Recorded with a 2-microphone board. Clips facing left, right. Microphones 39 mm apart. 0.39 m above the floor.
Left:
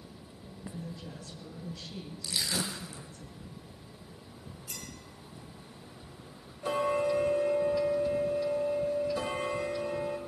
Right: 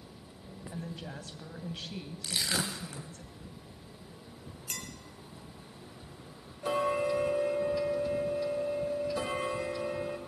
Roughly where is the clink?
Right.